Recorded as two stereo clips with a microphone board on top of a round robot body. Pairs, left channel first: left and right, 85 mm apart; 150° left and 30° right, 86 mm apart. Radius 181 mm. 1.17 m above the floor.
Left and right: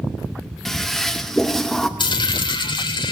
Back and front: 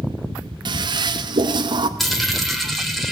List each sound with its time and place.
0.7 s a toilet flushing: 5° left, 0.9 m
2.0 s a dropped coin: 60° left, 1.5 m